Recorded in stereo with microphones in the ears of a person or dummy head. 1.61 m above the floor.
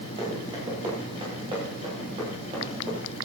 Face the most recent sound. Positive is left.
turn(degrees=-40)  # may be behind; listen again after turning